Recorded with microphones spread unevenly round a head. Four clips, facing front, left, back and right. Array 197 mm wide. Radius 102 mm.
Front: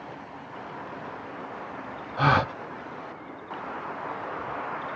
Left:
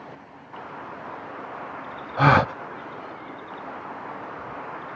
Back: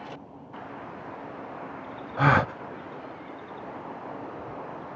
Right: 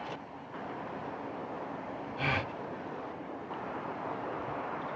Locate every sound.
2.2 s a gasp: 100° left